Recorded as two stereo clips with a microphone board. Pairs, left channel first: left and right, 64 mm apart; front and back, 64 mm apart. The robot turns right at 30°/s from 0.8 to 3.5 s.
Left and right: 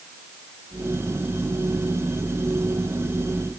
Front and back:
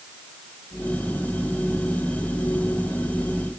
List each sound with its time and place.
Only background noise.